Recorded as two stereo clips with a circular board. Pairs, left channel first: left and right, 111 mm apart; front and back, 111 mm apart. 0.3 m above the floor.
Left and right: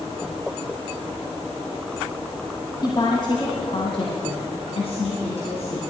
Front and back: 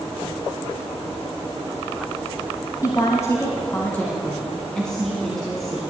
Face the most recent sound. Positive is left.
turn(degrees=90)